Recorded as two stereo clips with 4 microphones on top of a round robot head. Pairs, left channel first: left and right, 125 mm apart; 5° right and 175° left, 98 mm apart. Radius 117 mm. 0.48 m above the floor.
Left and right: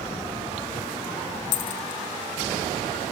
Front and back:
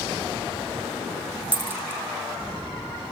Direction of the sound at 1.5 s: 105° left.